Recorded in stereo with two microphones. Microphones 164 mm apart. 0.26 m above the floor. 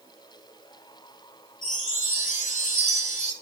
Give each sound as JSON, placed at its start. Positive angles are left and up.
{"t": 1.6, "sound": "a chime", "side_deg": 50, "distance_m": 1.4}